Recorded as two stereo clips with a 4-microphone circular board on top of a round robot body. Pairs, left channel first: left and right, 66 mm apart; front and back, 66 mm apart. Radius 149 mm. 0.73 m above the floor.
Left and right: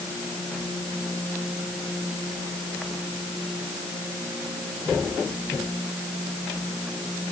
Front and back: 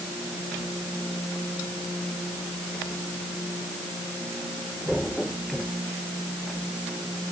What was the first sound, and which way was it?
Only background noise.